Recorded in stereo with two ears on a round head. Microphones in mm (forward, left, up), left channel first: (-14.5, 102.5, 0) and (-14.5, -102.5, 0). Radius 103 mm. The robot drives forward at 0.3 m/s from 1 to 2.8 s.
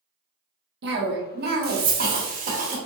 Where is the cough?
50° right (ahead or behind), 1.1 m; by 2.8 s 35° right (ahead or behind), 1.4 m.